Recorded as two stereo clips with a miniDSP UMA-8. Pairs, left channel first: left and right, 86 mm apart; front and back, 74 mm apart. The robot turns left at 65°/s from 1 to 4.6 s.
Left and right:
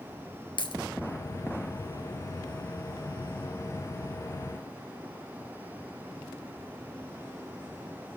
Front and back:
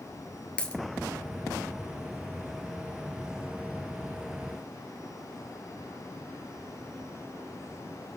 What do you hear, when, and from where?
0.6 s a dropped coin: 75° left, 1.6 m